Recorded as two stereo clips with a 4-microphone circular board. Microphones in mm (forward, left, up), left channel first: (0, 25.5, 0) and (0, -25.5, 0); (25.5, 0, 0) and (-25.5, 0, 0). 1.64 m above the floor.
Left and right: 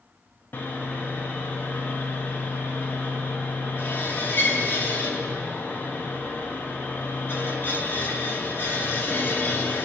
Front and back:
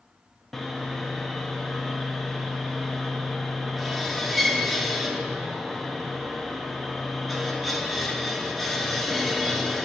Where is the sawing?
90° left, 1.2 m.